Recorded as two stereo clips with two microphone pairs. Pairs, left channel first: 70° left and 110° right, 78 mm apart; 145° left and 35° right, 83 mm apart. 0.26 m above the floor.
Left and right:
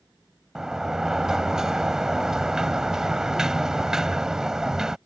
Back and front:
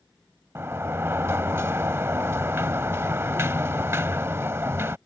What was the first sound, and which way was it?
A sliding door, 30° right.